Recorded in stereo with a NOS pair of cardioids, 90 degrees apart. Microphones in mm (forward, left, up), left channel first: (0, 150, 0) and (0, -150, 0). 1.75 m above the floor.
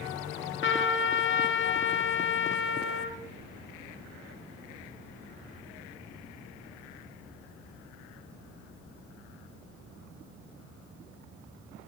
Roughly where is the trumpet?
Ahead left.